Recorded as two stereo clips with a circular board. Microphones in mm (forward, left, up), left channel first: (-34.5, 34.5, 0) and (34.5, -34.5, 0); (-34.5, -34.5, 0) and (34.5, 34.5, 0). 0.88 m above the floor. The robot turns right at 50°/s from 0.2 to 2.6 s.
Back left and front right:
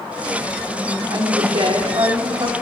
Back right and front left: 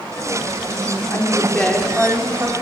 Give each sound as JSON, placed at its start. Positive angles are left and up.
{"t": 1.1, "sound": "a woman speaking", "azimuth_deg": -80, "distance_m": 2.5}